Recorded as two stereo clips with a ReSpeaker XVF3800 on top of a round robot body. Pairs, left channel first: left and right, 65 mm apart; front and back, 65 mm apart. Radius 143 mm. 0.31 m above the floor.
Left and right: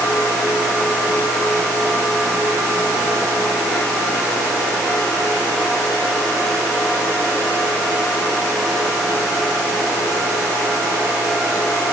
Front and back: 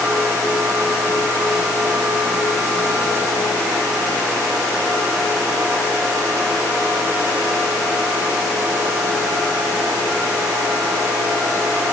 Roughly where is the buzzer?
No buzzer in this recording.